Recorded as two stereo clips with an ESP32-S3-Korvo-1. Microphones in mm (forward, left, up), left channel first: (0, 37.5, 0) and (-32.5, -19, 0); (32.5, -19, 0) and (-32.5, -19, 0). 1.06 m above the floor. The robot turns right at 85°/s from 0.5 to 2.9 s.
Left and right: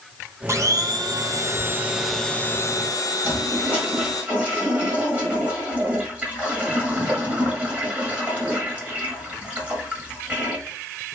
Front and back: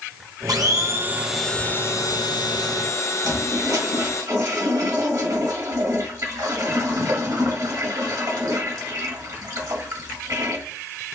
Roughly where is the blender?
Behind.